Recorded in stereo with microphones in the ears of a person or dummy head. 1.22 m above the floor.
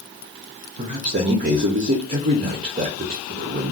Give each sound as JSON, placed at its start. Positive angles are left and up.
{"t": 0.8, "sound": "a man speaking", "side_deg": -35, "distance_m": 0.5}